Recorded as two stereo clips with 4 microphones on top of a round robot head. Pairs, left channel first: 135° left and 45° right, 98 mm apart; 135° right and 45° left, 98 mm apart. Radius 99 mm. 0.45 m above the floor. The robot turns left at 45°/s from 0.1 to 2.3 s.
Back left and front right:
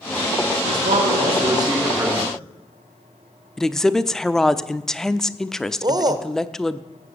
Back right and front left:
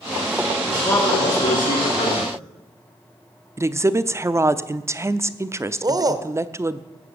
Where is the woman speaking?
55° left, 0.8 m.